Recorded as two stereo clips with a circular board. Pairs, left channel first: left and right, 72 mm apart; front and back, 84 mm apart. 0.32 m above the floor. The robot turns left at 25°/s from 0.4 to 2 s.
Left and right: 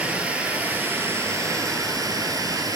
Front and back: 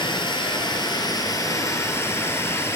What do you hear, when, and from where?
0.0 s running water: 20° right, 1.2 m; by 2.8 s 60° right, 1.2 m